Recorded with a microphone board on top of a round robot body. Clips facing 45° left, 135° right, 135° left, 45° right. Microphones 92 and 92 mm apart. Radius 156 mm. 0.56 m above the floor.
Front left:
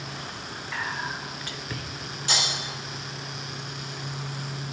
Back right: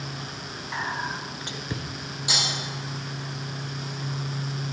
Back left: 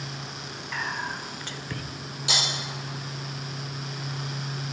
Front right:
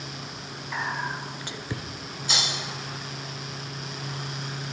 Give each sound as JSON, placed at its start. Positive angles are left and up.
{"t": 0.7, "sound": "whispering", "azimuth_deg": -100, "distance_m": 0.8}
{"t": 2.3, "sound": "breaking glass", "azimuth_deg": 145, "distance_m": 4.0}